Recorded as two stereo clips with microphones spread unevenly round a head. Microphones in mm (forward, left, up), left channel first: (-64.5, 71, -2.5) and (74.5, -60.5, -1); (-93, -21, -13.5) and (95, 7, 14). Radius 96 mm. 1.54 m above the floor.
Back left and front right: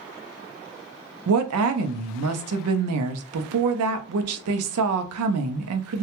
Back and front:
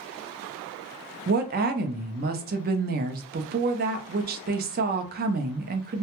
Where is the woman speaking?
35° right, 0.5 m.